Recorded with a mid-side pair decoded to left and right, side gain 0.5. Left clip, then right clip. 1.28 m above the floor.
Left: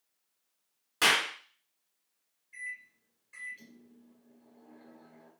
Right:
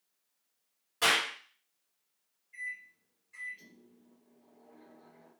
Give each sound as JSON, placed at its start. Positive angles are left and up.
{"t": 1.0, "sound": "a clap", "azimuth_deg": 60, "distance_m": 1.9}
{"t": 2.5, "sound": "a microwave", "azimuth_deg": 60, "distance_m": 2.0}